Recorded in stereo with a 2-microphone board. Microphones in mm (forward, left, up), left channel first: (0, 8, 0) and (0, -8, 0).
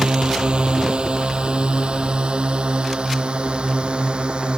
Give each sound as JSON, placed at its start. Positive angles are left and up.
{"t": 0.0, "sound": "a drone", "side_deg": -60}